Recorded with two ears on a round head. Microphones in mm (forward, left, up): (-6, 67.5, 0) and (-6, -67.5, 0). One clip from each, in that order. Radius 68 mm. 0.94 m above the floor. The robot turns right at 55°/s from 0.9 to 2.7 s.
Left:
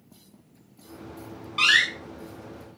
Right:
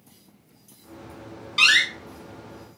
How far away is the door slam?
About 2.5 m.